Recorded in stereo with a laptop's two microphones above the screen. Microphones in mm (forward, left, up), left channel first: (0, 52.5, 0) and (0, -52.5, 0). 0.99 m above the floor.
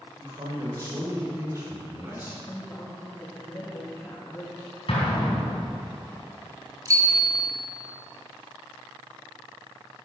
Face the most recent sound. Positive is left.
turn(degrees=-35)  # may be behind; listen again after turning